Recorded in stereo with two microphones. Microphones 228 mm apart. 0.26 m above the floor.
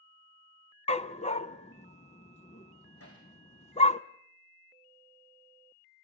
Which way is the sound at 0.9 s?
30° left (ahead or behind).